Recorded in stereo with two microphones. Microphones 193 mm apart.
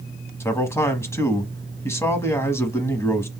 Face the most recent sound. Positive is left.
turn(degrees=15)  # may be behind; listen again after turning